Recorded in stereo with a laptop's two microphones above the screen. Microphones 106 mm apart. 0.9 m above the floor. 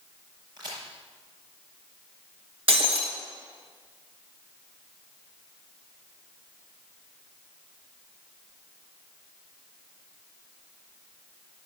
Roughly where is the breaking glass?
Right.